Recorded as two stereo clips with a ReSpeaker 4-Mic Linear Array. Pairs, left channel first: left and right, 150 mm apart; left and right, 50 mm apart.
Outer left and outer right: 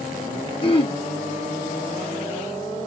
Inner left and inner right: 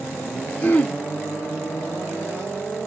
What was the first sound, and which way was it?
Throat clearing, 35° left (ahead or behind).